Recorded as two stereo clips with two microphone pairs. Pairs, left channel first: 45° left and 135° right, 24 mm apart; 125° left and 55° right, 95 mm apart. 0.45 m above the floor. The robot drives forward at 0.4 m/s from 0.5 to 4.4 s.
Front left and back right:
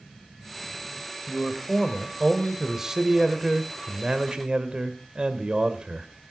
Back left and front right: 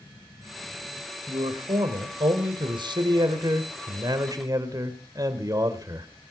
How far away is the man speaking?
About 2 m.